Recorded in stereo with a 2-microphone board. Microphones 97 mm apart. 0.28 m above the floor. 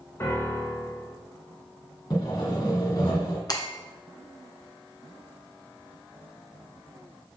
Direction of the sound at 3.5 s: 45° left (ahead or behind).